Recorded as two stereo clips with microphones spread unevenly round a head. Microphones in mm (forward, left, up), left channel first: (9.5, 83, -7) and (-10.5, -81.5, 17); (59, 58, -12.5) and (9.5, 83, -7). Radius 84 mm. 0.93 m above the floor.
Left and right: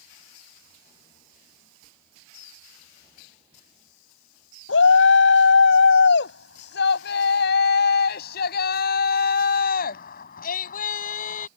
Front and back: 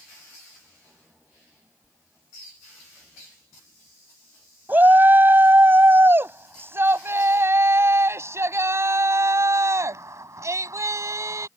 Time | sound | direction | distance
4.7 | a shout | 100° left | ?